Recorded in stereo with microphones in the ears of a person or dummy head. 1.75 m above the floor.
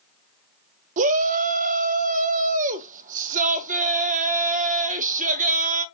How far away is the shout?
About 0.5 m.